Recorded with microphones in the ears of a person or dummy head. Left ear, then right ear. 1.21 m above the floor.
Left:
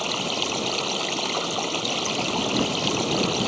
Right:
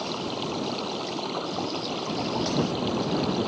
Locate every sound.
0.0 s running water: 70° left (ahead or behind)